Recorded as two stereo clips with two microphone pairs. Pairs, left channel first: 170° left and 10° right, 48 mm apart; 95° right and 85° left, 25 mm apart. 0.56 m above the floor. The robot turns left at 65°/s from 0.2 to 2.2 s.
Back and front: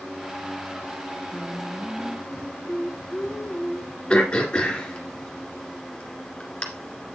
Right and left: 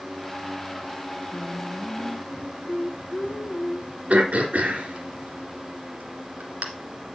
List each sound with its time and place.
1.3 s singing: 50° right, 0.9 m; by 4.0 s 110° right, 0.9 m
4.1 s throat clearing: 100° left, 2 m